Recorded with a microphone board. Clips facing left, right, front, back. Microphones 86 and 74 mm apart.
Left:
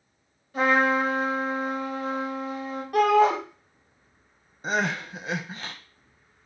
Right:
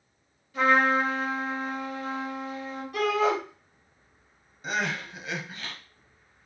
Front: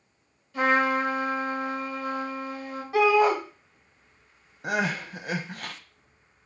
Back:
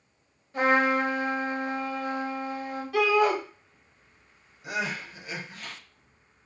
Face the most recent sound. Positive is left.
turn(degrees=35)